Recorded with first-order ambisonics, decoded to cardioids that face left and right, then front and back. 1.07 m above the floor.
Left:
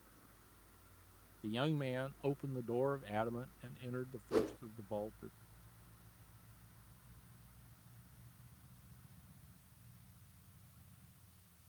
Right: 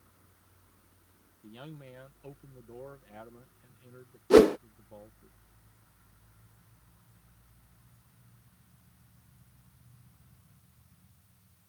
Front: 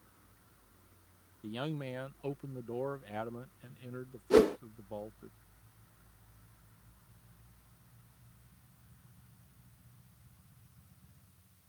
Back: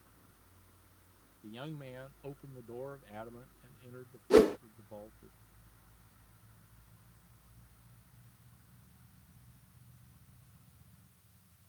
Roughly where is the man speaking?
Ahead left.